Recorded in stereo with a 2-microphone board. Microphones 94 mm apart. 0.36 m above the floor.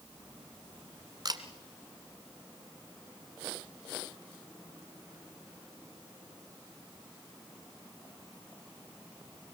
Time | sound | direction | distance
1.2 | a camera shutter | 45° right (ahead or behind) | 1.7 m